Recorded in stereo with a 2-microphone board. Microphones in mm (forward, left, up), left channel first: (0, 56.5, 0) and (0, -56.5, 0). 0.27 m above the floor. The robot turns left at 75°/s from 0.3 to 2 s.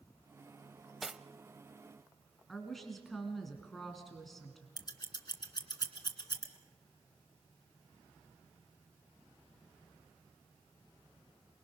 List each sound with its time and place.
1.0 s cutlery clinking: centre (ahead or behind), 0.6 m; by 1.2 s 10° right (ahead or behind), 0.6 m
2.5 s a woman speaking: centre (ahead or behind), 2.5 m
4.8 s scissors: 35° left (ahead or behind), 2 m